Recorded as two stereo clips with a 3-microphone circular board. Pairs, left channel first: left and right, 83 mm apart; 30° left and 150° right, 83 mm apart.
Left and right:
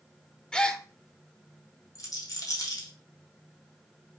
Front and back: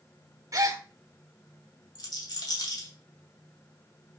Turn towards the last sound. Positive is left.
turn(degrees=55)